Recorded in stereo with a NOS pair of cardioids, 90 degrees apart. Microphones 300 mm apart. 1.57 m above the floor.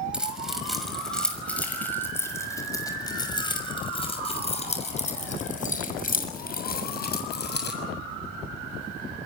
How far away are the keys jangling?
About 6 m.